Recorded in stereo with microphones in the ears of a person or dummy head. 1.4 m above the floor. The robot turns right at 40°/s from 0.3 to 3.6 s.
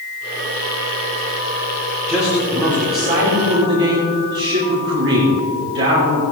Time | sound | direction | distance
2.1 | a man speaking | 175° left | 5.5 m